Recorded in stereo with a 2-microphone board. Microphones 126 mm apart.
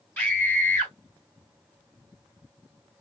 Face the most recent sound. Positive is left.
turn(degrees=15)  # may be behind; listen again after turning